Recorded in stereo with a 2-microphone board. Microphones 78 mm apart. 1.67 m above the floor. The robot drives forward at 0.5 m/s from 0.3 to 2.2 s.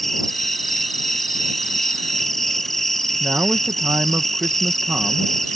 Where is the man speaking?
20° right (ahead or behind).